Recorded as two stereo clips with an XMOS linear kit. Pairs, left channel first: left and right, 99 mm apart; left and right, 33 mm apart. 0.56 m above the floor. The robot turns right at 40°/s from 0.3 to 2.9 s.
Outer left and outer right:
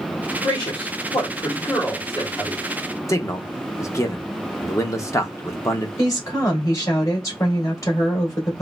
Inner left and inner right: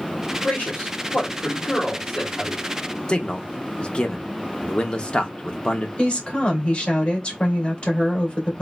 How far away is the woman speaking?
About 2 m.